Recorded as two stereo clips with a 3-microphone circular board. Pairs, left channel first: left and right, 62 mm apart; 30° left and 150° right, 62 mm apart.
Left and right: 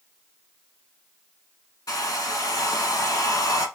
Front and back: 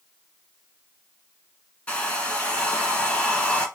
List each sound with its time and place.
1.9 s a hair dryer: 95° left, 1.0 m